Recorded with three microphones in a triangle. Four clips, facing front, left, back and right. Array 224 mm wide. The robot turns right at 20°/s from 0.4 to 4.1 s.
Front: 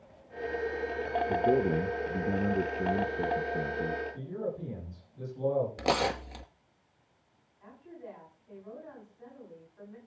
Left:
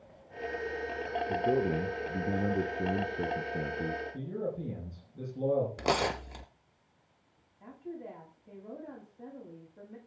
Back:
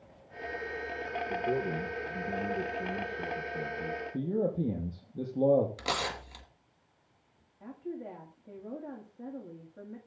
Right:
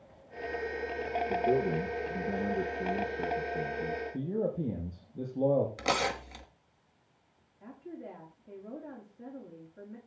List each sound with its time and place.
1.3 s a man speaking: 15° left, 1.8 m; by 4.0 s 70° left, 1.8 m
4.1 s a man speaking: 160° right, 6 m
5.8 s tearing paper: 35° left, 1.3 m
7.6 s a woman speaking: 165° left, 8.5 m